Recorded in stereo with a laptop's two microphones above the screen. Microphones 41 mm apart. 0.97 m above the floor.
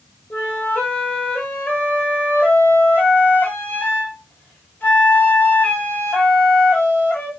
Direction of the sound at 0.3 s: 50° left (ahead or behind).